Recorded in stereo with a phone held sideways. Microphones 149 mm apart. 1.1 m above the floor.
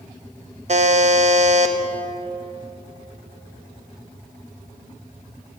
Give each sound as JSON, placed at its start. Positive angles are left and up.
{"t": 0.7, "sound": "a buzzer", "side_deg": -50, "distance_m": 0.8}